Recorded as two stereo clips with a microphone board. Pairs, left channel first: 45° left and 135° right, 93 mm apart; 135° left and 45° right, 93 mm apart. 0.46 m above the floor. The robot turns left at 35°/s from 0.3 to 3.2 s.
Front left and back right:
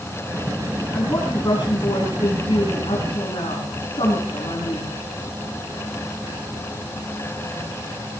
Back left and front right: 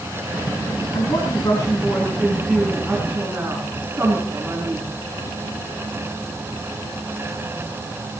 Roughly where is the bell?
I don't hear a bell.